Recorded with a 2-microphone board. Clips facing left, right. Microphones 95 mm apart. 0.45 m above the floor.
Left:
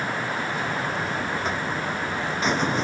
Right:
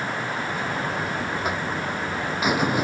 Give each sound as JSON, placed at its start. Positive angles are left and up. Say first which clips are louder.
{"t": 0.5, "sound": "a buzzer", "louder": "even", "side_deg": -10}